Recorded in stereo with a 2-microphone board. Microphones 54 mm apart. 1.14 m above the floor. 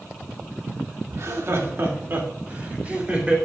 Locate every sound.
1.1 s laughter: 65° right (ahead or behind), 2.5 m; by 3.4 s 20° right (ahead or behind), 3.5 m